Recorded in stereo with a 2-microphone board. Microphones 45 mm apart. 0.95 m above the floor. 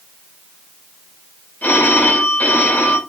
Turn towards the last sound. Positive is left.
turn(degrees=40)  # may be behind; listen again after turning